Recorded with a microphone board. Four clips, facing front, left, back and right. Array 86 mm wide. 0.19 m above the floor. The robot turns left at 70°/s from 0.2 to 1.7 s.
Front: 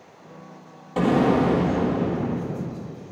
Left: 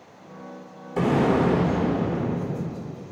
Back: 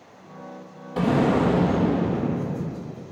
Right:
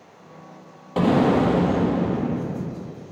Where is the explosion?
75° right, 1.2 m; by 2.9 s 125° right, 1.2 m.